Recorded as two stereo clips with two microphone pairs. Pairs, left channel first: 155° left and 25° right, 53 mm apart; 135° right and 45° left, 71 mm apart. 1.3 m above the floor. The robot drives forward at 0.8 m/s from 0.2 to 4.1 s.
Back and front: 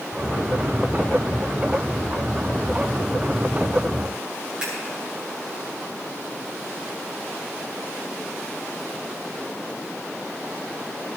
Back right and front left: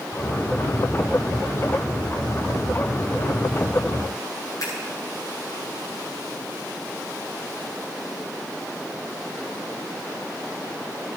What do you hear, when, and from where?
4.6 s scissors: 100° right, 9 m